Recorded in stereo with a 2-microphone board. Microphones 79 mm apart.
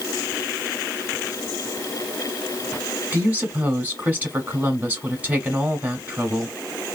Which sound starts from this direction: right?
A woman speaking, at 3.1 s.